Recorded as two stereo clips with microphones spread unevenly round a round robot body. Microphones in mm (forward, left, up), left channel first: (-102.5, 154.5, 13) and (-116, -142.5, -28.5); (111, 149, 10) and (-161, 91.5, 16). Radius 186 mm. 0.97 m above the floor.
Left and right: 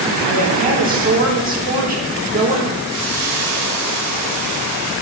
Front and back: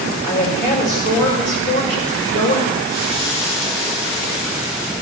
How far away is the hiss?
About 4 m.